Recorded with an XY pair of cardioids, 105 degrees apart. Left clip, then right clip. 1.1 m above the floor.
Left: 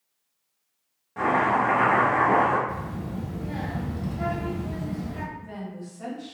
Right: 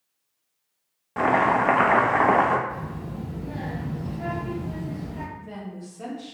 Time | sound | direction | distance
1.2 | chopping | 65° right | 0.7 m
2.7 | a child speaking | 70° left | 1.1 m
5.3 | a woman speaking | 50° right | 1.9 m